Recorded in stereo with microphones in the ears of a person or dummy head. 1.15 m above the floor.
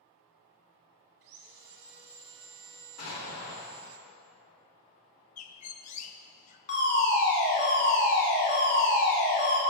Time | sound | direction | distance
1.2 | sawing | 60° right (ahead or behind) | 0.9 m
3.0 | an explosion | 85° left | 2.5 m
5.4 | a bird | 35° left (ahead or behind) | 0.6 m
6.7 | a fire alarm | 50° left (ahead or behind) | 2 m